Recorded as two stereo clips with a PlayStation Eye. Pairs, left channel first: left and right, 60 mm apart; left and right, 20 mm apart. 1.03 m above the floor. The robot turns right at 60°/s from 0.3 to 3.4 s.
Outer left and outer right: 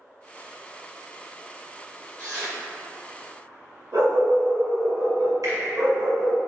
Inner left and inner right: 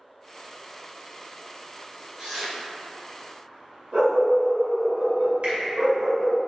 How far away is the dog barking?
About 1.1 m.